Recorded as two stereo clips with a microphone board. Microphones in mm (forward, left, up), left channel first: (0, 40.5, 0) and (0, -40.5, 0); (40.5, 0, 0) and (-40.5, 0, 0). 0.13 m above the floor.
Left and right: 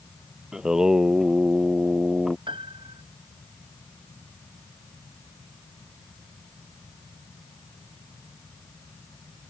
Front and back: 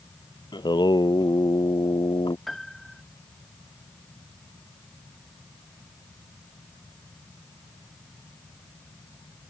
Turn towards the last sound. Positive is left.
turn(degrees=-90)